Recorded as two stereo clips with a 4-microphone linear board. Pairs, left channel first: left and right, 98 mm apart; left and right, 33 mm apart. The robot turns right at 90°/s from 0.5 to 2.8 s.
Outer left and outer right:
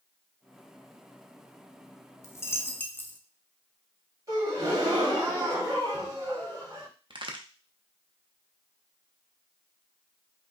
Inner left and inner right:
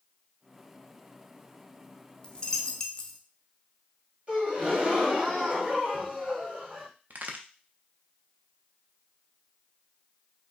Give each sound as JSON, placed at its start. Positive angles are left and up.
{"t": 2.2, "sound": "a dropped coin", "side_deg": 25, "distance_m": 0.6}
{"t": 4.3, "sound": "a gasp", "side_deg": -30, "distance_m": 2.5}
{"t": 7.1, "sound": "a crack", "side_deg": -50, "distance_m": 0.8}